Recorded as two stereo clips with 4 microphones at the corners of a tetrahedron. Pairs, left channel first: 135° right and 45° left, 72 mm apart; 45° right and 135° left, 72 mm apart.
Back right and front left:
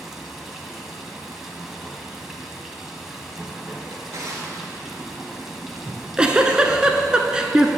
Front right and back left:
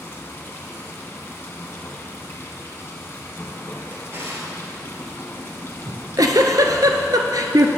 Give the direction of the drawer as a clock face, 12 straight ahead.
9 o'clock.